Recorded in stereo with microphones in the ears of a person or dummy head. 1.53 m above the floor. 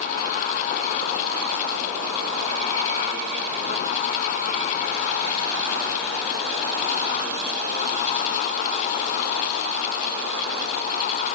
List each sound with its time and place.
Only background noise.